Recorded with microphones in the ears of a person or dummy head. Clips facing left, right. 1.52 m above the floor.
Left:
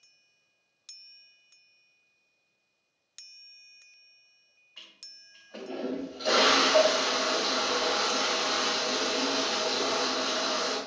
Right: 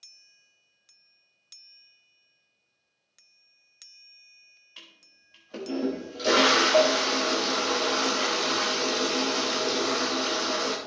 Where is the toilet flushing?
35° right (ahead or behind), 1.2 m.